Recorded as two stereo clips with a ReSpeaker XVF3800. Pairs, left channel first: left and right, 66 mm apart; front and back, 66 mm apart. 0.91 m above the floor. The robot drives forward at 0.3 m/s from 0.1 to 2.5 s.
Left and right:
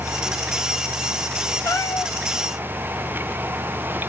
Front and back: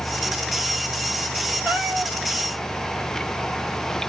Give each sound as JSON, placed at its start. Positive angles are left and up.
{"t": 1.6, "sound": "a cat meowing", "azimuth_deg": 115, "distance_m": 2.0}